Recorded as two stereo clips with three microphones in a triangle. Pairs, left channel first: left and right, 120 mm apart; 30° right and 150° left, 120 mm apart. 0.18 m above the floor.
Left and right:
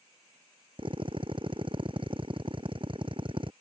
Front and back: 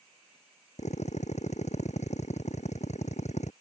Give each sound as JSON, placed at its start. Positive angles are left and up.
{"t": 0.8, "sound": "a drill", "azimuth_deg": -45}